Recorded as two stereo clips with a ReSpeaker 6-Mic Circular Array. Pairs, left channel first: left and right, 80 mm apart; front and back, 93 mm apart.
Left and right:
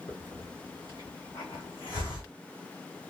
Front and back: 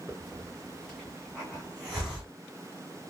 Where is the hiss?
90° left, 2.5 m.